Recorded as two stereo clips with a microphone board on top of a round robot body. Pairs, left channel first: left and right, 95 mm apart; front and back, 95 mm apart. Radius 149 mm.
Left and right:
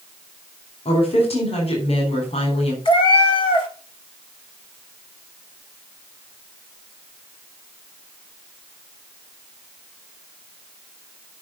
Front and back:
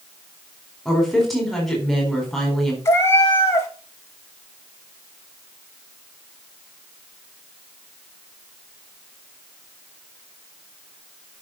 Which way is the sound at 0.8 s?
90° left.